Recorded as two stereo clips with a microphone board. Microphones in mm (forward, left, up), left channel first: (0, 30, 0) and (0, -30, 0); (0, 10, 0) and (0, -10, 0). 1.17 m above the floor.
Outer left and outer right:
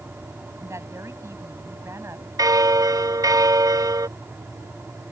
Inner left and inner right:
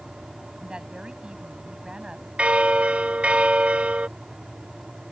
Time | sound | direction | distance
0.6 | a woman speaking | 50° right (ahead or behind) | ?
2.4 | a bell | 85° right | ?